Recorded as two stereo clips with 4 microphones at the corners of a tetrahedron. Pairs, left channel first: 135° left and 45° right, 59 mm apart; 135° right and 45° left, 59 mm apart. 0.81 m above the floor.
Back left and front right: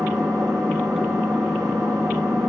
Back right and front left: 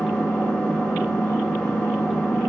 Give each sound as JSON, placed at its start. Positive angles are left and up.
{"t": 0.0, "sound": "an engine running", "azimuth_deg": -65, "distance_m": 0.7}